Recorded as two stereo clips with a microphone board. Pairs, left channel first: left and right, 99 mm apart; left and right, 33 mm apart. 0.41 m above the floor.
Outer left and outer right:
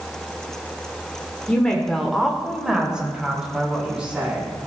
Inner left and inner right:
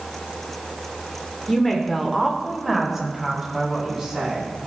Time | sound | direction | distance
1.5 | a woman speaking | 10° left (ahead or behind) | 1.2 m